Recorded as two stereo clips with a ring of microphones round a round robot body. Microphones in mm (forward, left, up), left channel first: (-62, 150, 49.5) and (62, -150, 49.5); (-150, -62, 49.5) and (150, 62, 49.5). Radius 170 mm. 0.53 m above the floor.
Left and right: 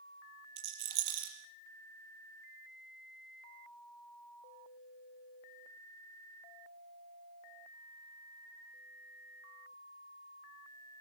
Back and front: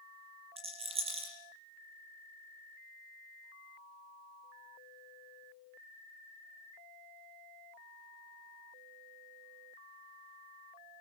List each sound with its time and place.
0.6 s a rattle: 50° right, 6.5 m